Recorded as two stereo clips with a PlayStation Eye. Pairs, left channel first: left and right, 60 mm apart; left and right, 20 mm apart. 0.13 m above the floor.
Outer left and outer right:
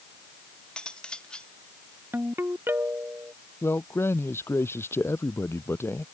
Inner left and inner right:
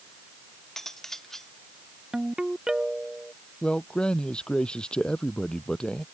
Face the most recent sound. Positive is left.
turn(degrees=45)  # may be behind; listen again after turning